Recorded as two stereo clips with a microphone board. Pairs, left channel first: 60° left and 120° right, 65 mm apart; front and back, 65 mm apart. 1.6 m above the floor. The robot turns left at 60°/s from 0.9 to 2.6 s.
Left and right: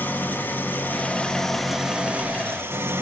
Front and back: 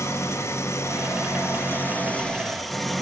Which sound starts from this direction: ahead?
An engine running, at 0.0 s.